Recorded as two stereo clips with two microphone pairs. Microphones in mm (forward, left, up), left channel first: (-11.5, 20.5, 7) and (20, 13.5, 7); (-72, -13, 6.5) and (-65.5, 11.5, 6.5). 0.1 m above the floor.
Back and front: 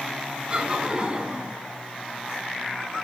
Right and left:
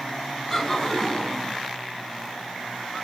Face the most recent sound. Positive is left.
turn(degrees=-30)